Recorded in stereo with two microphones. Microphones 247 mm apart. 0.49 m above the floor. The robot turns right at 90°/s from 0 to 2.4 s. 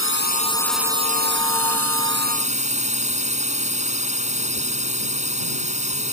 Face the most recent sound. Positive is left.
turn(degrees=-30)